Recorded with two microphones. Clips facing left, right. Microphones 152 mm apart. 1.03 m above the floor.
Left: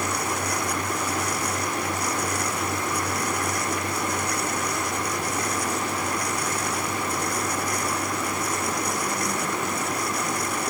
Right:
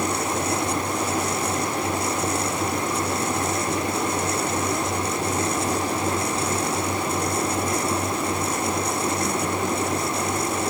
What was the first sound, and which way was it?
Only background noise.